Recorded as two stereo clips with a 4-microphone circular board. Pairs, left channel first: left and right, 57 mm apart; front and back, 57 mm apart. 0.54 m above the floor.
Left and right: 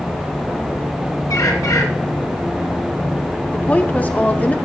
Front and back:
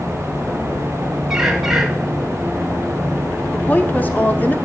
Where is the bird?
100° left, 1.4 m.